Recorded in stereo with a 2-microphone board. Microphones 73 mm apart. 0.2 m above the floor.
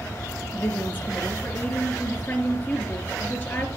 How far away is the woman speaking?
About 3 m.